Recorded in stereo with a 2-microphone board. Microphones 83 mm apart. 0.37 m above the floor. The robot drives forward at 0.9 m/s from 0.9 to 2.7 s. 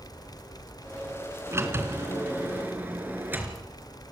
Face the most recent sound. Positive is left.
turn(degrees=-25)  # may be behind; listen again after turning